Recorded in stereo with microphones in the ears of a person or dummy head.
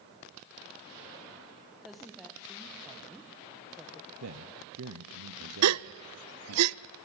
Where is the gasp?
85° right, 0.5 m.